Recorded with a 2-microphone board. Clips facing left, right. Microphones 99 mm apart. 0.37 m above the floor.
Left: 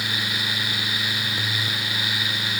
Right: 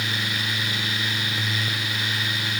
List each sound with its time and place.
Only background noise.